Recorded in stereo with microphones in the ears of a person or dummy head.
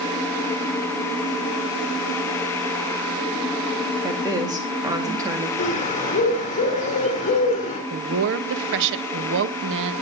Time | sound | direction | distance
4.0 | a woman speaking | 15° right (ahead or behind) | 3.5 m
5.6 | a bird | 40° left (ahead or behind) | 6.5 m
7.9 | a woman speaking | 65° right (ahead or behind) | 1.6 m